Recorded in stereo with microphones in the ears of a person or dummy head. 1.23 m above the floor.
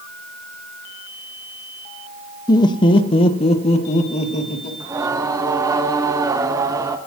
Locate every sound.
2.5 s laughter: 20° left (ahead or behind), 1.0 m; by 4.7 s 40° left (ahead or behind), 2.5 m
4.8 s singing: 15° right (ahead or behind), 0.9 m